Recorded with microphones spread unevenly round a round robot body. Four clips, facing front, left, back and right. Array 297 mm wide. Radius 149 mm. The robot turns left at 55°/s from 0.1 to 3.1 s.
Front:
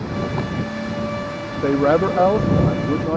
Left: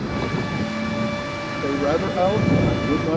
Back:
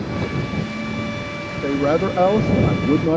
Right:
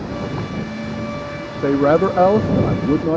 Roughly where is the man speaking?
Ahead right.